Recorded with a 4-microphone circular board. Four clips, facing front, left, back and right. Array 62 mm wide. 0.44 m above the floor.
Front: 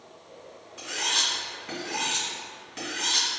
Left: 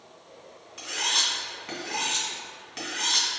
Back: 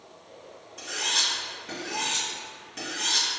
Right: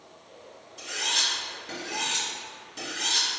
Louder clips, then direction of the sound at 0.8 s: Left 1 dB, front 1 dB; 75° left.